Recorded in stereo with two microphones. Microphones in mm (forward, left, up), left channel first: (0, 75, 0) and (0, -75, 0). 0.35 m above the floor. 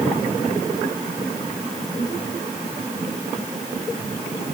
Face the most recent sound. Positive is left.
No sound to turn to.